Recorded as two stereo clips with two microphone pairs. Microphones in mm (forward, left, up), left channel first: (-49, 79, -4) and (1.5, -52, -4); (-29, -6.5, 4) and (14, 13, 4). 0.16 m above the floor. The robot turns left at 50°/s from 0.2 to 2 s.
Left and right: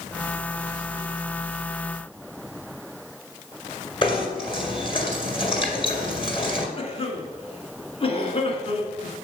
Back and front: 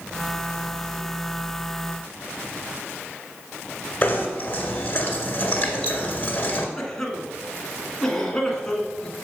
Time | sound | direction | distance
4.0 | knocking | 155° left | 1.8 m
6.8 | a cough | 125° left | 1.5 m